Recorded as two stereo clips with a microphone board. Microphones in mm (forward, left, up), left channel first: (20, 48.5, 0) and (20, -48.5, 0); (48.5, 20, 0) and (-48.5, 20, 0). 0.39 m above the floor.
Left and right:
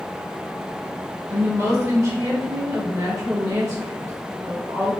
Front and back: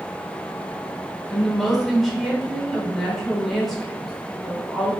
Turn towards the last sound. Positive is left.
turn(degrees=-90)